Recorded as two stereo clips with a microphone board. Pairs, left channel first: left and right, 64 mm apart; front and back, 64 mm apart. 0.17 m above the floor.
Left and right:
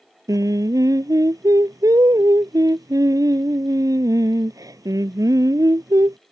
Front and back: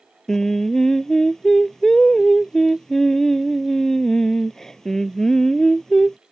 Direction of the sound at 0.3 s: 80° right.